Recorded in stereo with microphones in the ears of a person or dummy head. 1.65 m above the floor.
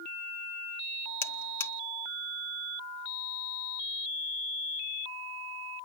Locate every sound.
1.2 s a buzzer: 15° left (ahead or behind), 0.7 m